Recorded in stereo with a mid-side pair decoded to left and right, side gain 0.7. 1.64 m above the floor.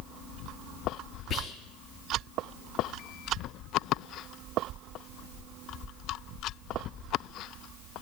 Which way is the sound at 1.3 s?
45° left.